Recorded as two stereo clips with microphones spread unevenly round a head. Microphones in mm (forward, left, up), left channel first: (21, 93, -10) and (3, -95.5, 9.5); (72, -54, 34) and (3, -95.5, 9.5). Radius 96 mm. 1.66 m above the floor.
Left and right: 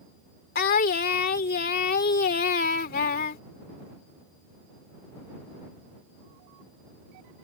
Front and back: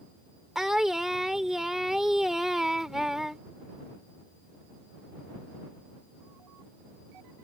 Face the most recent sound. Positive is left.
turn(degrees=105)